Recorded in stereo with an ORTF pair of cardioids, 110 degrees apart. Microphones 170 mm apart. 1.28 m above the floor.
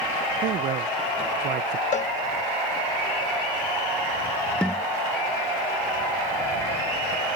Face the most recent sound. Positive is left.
turn(degrees=5)